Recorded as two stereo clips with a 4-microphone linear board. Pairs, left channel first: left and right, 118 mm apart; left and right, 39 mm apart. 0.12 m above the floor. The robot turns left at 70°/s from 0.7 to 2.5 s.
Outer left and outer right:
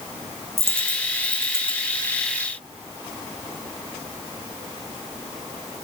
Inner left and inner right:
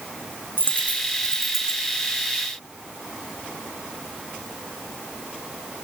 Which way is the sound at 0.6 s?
55° right (ahead or behind).